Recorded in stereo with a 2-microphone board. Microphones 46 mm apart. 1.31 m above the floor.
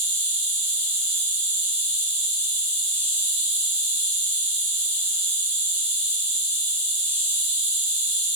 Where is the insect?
60° right (ahead or behind), 1.2 m.